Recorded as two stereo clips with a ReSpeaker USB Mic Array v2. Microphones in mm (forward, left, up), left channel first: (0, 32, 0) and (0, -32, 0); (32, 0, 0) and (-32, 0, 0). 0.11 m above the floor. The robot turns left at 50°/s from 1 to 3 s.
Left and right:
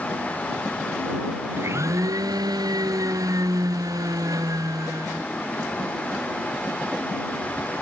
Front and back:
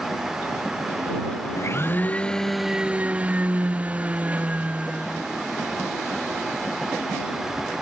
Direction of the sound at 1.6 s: 40° right.